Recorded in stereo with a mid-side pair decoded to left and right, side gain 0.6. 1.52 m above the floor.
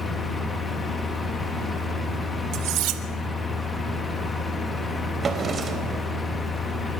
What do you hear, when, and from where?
0.0 s a fan: 20° left, 3.5 m
2.5 s cutlery clinking: 65° right, 2 m
5.2 s a drawer: 30° right, 3.5 m